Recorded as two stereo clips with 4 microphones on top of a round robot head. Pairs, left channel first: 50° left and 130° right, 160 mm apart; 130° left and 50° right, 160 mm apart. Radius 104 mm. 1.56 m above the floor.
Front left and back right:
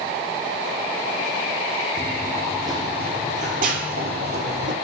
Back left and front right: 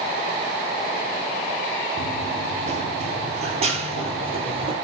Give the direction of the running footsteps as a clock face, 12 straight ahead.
2 o'clock.